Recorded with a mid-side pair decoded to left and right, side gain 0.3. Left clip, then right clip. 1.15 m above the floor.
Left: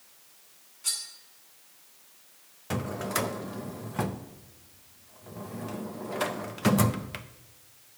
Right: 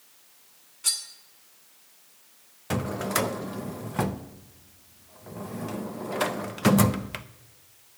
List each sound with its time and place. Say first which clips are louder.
0.8 s cutlery clinking: right 4 dB; 65° right, 1.9 m
2.7 s a drawer: right 3 dB; 40° right, 0.6 m